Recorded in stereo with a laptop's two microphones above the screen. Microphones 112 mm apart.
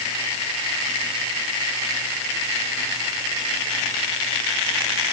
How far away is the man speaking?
I don't hear a man speaking.